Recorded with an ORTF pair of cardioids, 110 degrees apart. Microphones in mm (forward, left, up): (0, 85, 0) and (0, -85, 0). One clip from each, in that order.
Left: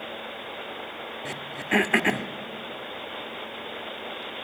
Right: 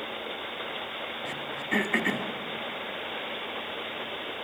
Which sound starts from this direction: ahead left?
Throat clearing, at 1.2 s.